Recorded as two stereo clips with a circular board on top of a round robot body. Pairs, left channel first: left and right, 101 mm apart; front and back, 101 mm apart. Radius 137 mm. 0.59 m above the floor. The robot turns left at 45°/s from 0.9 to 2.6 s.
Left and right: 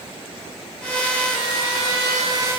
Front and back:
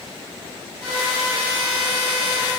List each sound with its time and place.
Only background noise.